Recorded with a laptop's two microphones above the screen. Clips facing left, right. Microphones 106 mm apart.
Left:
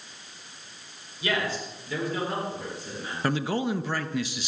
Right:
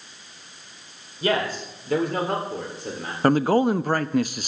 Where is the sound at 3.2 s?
50° right (ahead or behind), 0.7 m.